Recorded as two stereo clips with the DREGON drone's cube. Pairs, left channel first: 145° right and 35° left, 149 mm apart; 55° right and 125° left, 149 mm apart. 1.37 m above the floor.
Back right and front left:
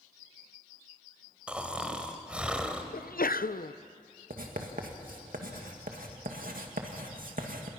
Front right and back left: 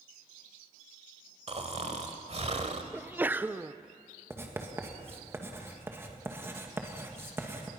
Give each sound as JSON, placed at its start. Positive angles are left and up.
{"t": 1.5, "sound": "snoring", "azimuth_deg": 115, "distance_m": 1.5}
{"t": 2.9, "sound": "a sneeze", "azimuth_deg": -160, "distance_m": 0.6}
{"t": 4.3, "sound": "writing", "azimuth_deg": 50, "distance_m": 2.0}